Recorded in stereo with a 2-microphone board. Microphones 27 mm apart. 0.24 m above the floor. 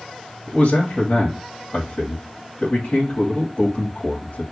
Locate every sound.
0.5 s a man speaking: 45° left (ahead or behind), 1.6 m